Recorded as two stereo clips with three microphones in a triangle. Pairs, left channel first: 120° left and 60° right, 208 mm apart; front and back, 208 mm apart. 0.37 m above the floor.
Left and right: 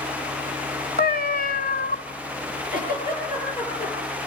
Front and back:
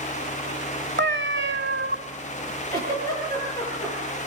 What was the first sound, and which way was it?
A cat meowing, 160° left.